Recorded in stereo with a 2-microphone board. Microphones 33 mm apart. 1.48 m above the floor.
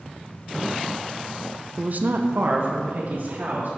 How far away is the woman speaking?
About 0.6 m.